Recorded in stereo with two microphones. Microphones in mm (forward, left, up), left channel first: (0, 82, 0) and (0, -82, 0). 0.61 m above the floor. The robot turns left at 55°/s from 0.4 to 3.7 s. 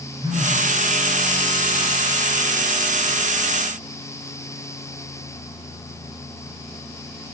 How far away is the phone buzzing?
About 7 m.